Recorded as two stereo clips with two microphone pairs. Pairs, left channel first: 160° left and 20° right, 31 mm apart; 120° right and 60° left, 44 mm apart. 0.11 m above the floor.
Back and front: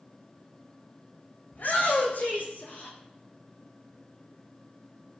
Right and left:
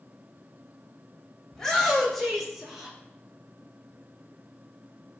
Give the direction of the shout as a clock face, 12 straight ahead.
7 o'clock.